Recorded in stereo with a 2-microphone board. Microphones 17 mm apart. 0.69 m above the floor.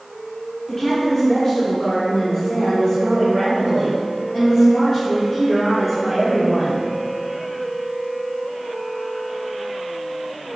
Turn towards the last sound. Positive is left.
turn(degrees=-10)  # may be behind; listen again after turning